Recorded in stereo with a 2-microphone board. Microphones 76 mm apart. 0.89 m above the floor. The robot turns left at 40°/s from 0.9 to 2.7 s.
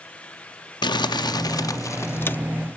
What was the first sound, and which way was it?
Crumpling, 85° left.